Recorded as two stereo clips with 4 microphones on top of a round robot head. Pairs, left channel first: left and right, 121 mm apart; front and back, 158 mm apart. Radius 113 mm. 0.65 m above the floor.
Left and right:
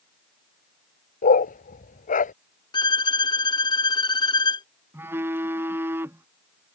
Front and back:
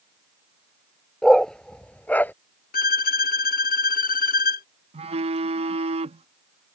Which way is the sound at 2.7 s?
35° left.